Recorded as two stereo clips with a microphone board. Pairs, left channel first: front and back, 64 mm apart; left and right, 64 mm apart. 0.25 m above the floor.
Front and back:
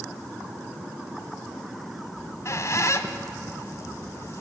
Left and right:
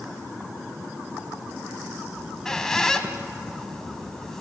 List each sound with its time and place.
2.2 s a squeak: 10° left, 1.2 m